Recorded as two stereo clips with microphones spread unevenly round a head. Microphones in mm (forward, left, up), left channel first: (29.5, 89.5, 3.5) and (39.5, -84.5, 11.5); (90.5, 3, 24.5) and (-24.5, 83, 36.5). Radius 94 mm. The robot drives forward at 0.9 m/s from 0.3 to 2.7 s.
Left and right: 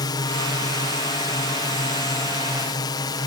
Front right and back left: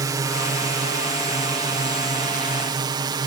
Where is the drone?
120° left; by 3.3 s 130° left.